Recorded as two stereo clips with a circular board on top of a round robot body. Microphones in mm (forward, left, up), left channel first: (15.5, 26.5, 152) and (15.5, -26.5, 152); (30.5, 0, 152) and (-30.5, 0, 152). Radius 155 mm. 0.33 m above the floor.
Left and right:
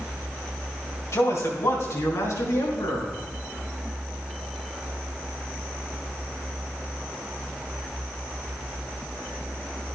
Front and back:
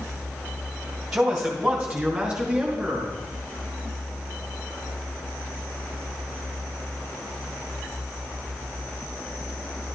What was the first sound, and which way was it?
A man speaking, 100° left.